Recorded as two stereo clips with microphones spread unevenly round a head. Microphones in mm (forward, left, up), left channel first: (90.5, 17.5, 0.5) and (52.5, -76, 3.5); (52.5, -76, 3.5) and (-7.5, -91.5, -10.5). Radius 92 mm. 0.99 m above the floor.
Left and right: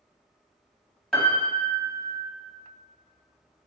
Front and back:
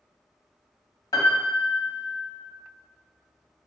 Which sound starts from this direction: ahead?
A piano, at 1.1 s.